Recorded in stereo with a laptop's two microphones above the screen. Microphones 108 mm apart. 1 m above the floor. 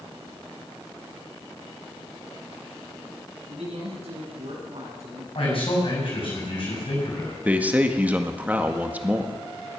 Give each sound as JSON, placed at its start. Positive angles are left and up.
{"t": 3.5, "sound": "a man speaking", "side_deg": -85, "distance_m": 7.0}
{"t": 5.3, "sound": "a man speaking", "side_deg": 60, "distance_m": 6.5}
{"t": 7.5, "sound": "a man speaking", "side_deg": -15, "distance_m": 1.6}